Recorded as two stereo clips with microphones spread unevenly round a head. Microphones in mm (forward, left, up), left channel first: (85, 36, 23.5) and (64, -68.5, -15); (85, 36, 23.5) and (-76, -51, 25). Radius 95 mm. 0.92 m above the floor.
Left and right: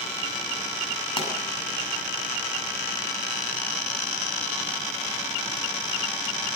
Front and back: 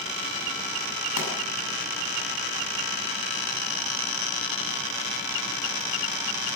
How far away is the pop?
About 7.5 m.